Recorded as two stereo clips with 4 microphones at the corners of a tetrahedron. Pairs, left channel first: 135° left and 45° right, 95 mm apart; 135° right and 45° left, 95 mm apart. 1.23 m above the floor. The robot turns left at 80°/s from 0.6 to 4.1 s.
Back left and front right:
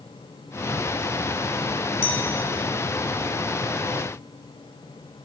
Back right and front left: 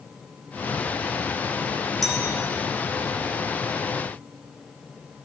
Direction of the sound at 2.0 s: 135° left.